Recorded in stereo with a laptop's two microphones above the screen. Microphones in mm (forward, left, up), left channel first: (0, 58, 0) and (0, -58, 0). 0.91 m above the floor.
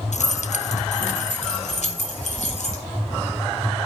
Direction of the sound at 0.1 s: 80° left.